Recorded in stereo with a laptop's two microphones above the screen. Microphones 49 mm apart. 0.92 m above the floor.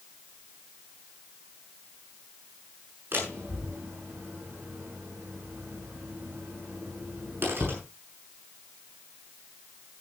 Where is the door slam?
50° right (ahead or behind), 7 m.